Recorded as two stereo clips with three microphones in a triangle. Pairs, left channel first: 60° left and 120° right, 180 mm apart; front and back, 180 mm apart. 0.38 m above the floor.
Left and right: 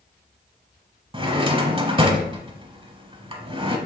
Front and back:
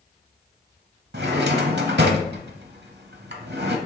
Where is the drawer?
175° right, 0.6 m.